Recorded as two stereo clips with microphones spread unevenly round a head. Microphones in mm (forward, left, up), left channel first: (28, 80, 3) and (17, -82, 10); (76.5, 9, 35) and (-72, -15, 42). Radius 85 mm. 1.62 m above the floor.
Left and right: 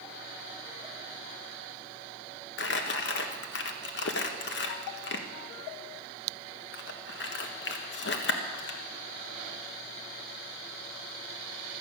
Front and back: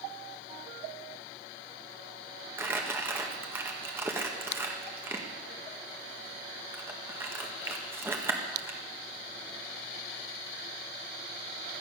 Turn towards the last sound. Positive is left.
turn(degrees=115)